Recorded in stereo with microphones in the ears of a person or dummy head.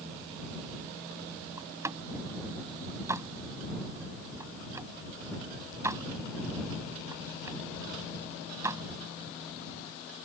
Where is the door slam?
15° right (ahead or behind).